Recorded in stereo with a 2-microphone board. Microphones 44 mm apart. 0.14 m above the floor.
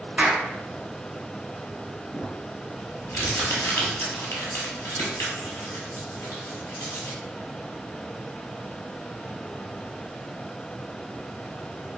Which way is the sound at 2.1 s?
60° left (ahead or behind).